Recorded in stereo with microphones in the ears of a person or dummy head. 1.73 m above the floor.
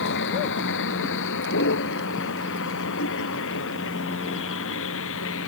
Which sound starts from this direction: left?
A vehicle, at 0.0 s.